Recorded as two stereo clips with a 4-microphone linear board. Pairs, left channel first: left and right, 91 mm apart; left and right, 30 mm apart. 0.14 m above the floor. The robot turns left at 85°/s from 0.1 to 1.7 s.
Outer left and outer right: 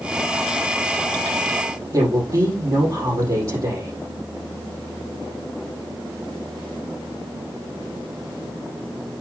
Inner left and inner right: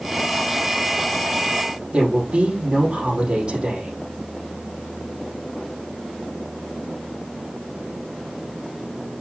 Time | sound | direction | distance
1.9 | a woman speaking | 40° right (ahead or behind) | 5 m